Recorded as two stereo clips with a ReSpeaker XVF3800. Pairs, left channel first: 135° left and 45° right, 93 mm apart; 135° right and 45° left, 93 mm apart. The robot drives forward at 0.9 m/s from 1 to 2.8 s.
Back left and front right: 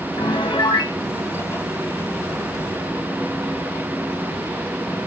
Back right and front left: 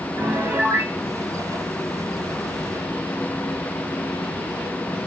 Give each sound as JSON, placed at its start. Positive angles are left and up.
{"t": 0.2, "sound": "a piano", "azimuth_deg": 105, "distance_m": 1.3}